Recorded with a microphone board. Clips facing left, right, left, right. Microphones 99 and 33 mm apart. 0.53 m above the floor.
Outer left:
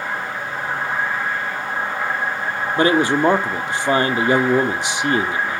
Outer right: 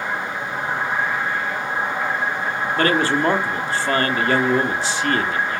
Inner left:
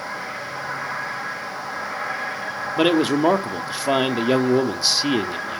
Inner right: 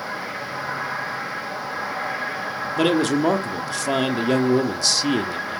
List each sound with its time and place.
2.8 s a man speaking: 20° left (ahead or behind), 0.9 m